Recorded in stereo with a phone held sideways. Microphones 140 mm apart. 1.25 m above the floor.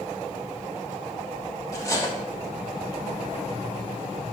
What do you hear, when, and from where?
1.7 s cutlery clinking: 20° left (ahead or behind), 0.8 m